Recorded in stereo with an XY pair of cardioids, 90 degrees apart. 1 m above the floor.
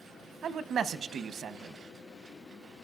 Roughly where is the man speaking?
Ahead right.